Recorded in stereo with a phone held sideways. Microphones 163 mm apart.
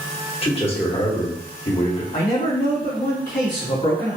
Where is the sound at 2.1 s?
60° left (ahead or behind), 2 m.